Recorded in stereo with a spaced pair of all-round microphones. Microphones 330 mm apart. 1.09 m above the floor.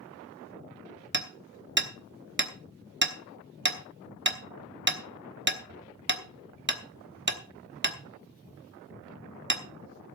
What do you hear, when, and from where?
1.1 s hammering: 35° right (ahead or behind), 1.0 m